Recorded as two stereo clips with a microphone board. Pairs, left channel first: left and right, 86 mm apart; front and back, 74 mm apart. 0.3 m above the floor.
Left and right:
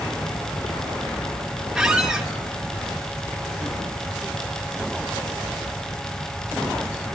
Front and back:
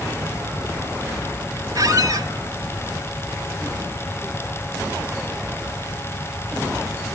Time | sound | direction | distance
1.8 | a squeak | 170° right | 1.3 m